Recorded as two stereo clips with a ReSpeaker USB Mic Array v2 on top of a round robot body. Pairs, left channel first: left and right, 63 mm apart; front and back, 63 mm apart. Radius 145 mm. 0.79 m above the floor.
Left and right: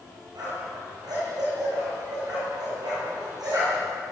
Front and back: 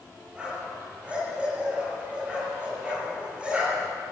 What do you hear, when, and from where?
0.3 s a dog barking: 105° right, 9 m